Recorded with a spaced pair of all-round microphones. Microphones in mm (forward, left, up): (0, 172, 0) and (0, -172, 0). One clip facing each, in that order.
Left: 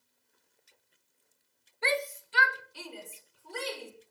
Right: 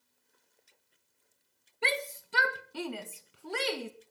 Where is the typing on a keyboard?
I don't hear typing on a keyboard.